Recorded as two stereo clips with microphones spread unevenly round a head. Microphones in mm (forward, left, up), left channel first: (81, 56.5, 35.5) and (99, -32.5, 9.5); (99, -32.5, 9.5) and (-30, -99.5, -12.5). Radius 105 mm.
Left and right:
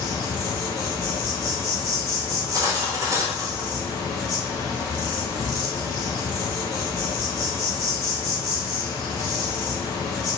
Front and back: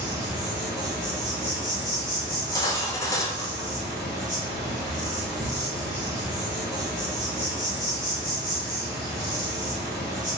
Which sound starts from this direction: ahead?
Cutlery clinking, at 2.3 s.